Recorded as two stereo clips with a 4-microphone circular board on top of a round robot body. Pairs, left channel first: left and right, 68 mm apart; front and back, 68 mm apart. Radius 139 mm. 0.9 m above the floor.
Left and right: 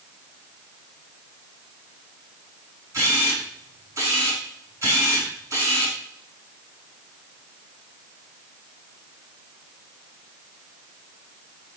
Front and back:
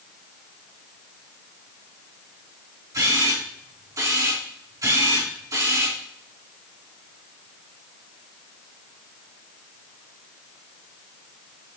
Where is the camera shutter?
135° right, 4 m.